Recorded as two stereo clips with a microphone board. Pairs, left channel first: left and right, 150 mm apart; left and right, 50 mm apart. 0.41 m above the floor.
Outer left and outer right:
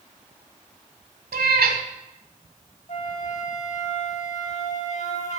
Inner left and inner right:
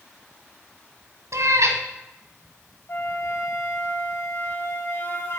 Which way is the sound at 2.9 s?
50° left (ahead or behind).